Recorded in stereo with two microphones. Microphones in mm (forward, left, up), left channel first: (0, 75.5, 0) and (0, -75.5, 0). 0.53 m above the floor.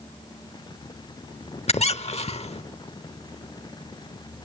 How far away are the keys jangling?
I don't hear keys jangling.